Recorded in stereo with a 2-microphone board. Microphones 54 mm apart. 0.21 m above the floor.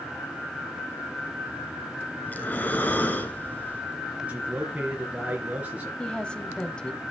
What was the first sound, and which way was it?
Breathing, 30° left (ahead or behind).